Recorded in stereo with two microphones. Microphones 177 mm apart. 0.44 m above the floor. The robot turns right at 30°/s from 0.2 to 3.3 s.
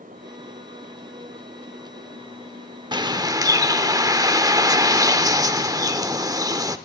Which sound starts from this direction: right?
A bird, at 2.9 s.